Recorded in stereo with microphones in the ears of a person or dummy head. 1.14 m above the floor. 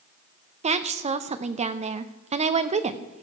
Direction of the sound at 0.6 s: 35° right (ahead or behind).